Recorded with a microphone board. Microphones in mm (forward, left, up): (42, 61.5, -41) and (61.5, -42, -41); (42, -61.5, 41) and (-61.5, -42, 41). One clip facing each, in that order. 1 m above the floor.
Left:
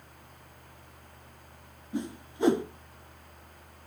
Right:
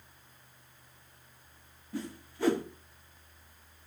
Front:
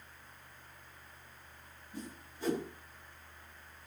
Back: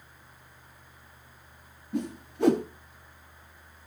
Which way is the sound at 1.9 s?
170° left.